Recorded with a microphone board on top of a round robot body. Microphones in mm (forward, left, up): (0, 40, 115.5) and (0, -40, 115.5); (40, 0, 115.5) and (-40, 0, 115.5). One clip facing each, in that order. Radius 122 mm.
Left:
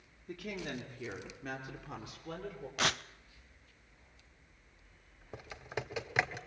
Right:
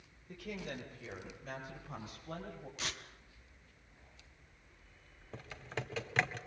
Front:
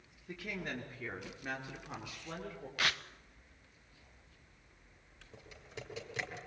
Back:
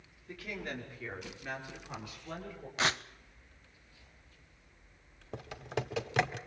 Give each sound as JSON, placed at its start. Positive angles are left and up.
{"t": 0.3, "sound": "a woman speaking", "azimuth_deg": 75, "distance_m": 6.0}
{"t": 2.8, "sound": "tearing paper", "azimuth_deg": 115, "distance_m": 0.5}
{"t": 5.3, "sound": "typing on a keyboard", "azimuth_deg": 165, "distance_m": 1.3}